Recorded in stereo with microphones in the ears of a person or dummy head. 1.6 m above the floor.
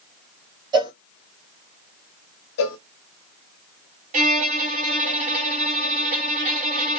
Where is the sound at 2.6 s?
70° left (ahead or behind), 0.6 m.